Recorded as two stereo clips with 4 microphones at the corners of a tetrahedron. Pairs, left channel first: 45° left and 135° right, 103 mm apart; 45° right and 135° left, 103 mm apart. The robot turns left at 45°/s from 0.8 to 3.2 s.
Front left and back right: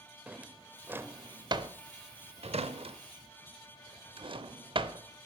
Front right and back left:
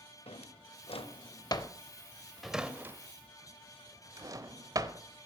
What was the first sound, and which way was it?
A drawer, 60° right.